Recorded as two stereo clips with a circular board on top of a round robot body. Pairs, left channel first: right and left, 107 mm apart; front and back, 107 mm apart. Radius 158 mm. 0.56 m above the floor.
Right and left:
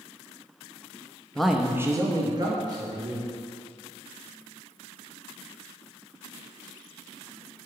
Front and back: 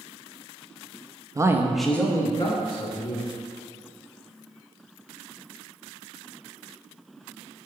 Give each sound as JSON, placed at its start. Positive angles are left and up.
{"t": 1.4, "sound": "a man speaking", "azimuth_deg": -170, "distance_m": 0.8}